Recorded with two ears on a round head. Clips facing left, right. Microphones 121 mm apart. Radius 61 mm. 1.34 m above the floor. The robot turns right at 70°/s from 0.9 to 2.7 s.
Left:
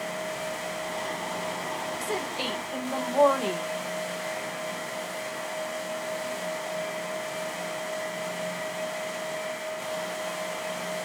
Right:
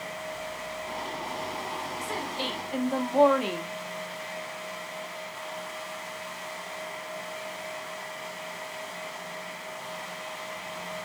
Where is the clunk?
No clunk in this recording.